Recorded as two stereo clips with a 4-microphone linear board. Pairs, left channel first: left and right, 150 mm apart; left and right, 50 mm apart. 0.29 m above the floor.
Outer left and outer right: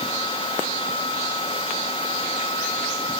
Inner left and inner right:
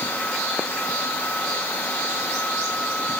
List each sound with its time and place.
Only background noise.